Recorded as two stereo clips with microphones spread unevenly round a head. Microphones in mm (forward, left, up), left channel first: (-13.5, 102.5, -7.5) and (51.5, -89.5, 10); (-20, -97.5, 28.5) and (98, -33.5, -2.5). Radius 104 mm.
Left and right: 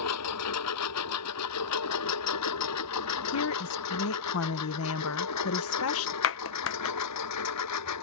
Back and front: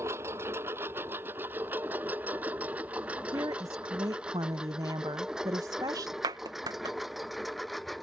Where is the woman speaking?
105° left.